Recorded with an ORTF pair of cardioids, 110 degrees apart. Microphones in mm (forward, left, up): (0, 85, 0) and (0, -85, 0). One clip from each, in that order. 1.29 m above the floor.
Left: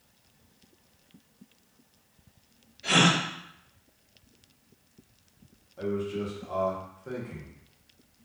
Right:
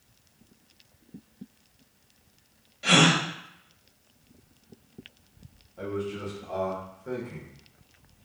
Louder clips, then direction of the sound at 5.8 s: Left 1 dB; 5° left.